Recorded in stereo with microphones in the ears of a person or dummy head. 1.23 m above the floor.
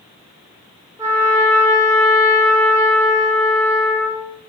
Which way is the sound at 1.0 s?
20° right (ahead or behind).